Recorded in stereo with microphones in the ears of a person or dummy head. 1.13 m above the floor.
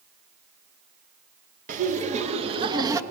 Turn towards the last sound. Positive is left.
turn(degrees=-20)  # may be behind; listen again after turning